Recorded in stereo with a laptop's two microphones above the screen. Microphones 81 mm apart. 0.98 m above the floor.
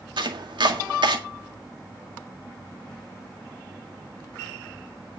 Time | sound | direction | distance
0.2 | chopping | 70° right (ahead or behind) | 1.9 m